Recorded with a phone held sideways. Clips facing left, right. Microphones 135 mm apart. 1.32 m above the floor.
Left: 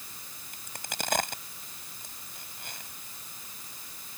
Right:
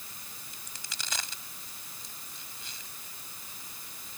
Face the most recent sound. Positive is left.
turn(degrees=55)  # may be behind; listen again after turning